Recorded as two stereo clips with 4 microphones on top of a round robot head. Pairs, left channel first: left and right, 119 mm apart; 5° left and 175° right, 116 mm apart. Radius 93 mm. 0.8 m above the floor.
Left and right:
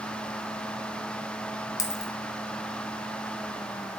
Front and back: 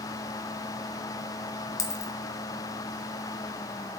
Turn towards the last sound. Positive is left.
turn(degrees=45)